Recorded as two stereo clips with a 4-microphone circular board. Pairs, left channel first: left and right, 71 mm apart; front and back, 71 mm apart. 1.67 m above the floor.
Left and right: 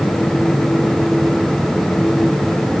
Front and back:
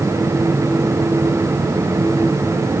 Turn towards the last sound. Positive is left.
No sound to turn to.